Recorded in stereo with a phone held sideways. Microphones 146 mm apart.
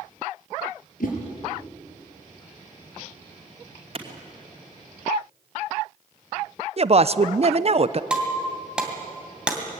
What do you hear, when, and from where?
1.0 s a whoosh: 70° left (ahead or behind), 4.5 m
4.0 s a clap: 40° right (ahead or behind), 2.5 m
6.8 s a woman speaking: 45° right (ahead or behind), 0.6 m
8.1 s breaking glass: 5° right (ahead or behind), 2.5 m